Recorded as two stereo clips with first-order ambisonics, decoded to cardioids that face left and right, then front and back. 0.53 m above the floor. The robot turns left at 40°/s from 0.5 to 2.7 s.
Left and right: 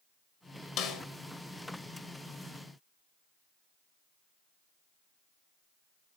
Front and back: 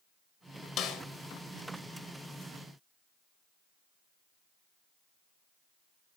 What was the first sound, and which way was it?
A snare drum, 50° left.